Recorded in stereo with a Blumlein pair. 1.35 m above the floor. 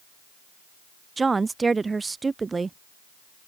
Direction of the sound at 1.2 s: 10° right.